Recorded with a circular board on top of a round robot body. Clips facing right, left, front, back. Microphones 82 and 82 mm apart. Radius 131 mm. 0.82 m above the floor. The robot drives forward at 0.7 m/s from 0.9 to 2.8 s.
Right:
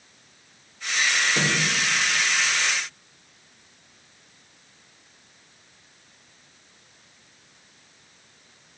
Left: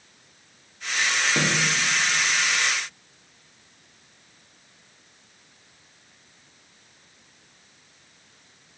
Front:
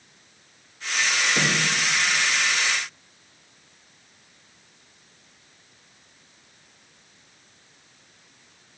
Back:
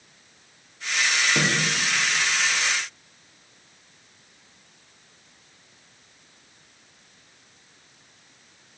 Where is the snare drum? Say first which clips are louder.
Left 2 dB, even; 135° left, 2.5 m.